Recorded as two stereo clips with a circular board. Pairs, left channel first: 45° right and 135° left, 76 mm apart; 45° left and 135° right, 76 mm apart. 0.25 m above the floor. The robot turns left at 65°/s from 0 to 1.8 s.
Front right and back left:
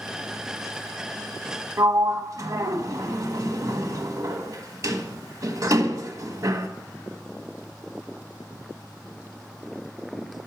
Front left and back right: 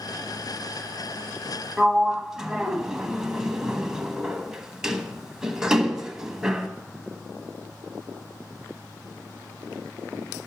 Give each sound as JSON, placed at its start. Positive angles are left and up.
{"t": 1.8, "sound": "a sliding door", "azimuth_deg": 145, "distance_m": 0.9}